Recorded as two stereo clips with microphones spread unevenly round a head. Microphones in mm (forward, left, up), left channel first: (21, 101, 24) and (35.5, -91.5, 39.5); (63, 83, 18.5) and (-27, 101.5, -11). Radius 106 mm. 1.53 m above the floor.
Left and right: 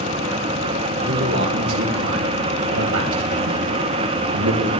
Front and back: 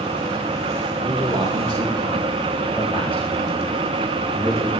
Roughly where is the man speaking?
Behind right.